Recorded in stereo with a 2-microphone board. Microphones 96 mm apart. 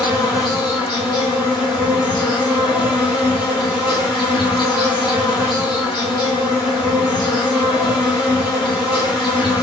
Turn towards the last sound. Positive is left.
turn(degrees=65)  # may be behind; listen again after turning